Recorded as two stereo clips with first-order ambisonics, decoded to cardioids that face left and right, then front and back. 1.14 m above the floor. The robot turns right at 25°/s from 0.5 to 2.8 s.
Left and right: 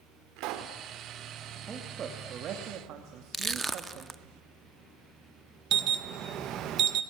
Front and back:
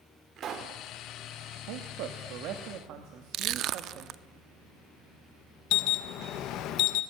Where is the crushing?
170° right, 0.7 m.